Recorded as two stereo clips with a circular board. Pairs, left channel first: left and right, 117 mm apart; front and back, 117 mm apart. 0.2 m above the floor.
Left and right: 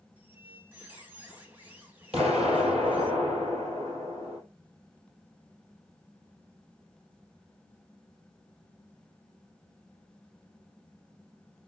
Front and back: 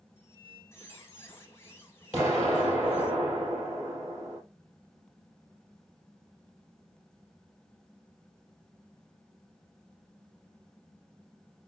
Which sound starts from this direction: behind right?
An explosion, at 2.1 s.